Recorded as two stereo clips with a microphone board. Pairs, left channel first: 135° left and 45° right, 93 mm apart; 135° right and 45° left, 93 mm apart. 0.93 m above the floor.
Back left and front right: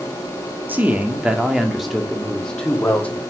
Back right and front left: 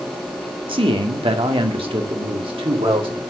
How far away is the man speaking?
About 1.6 m.